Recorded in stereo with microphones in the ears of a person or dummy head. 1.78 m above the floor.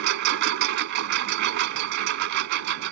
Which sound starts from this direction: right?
A lawn mower, at 0.0 s.